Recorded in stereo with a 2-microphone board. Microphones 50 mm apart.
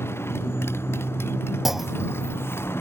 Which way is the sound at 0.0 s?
55° left (ahead or behind).